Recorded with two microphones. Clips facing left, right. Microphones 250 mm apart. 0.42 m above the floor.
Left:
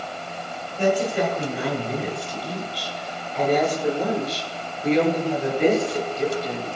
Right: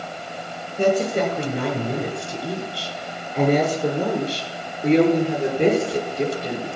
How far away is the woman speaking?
About 5 m.